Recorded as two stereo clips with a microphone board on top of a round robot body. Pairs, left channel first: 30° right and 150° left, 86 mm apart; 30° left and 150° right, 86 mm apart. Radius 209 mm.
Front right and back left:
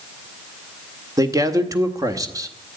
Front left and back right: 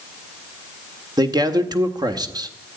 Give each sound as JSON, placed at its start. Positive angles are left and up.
{"t": 1.2, "sound": "a man speaking", "azimuth_deg": -170, "distance_m": 1.9}